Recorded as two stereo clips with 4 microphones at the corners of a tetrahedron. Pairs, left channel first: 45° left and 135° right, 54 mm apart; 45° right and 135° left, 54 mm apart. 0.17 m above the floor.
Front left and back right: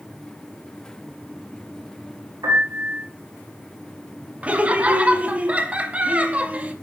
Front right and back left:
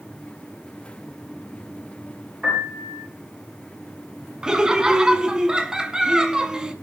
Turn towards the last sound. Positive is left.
turn(degrees=-165)